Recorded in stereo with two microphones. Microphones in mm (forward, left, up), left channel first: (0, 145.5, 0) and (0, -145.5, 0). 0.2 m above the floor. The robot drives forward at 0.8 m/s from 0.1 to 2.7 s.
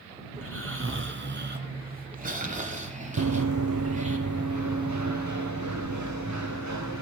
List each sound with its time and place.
0.3 s snoring: 50° right (ahead or behind), 1.6 m; by 4.2 s 25° right (ahead or behind), 3 m
3.2 s running footsteps: 80° right, 0.7 m; by 7.0 s 70° right (ahead or behind), 3 m